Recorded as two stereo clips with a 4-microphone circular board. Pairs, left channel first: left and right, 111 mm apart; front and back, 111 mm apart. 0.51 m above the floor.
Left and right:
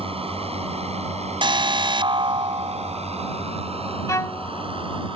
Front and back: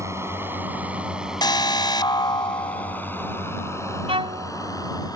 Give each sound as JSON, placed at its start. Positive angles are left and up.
{"t": 0.0, "sound": "a drone", "azimuth_deg": -115}
{"t": 1.4, "sound": "an alarm", "azimuth_deg": -50}
{"t": 4.1, "sound": "a violin", "azimuth_deg": 150}